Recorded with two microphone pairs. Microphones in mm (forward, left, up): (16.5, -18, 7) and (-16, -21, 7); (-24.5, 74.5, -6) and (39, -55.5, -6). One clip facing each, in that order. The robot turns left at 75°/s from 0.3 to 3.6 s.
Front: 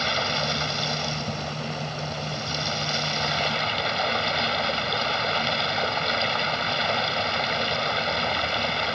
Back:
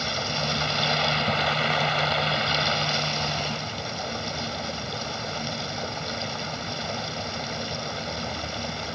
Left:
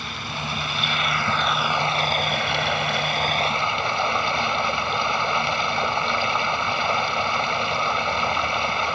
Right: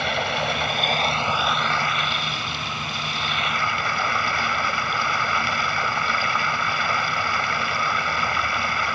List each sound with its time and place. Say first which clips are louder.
0.0 s running water: front 3 dB, right 8 dB; 65° right; by 9.0 s 50° left